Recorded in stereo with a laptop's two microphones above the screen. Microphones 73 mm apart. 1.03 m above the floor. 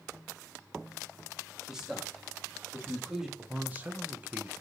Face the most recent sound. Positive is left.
turn(degrees=-25)  # may be behind; listen again after turning